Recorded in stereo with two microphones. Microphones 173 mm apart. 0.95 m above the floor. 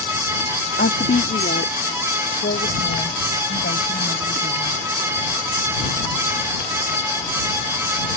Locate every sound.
0.8 s a woman speaking: 75° left (ahead or behind); by 4.8 s 85° left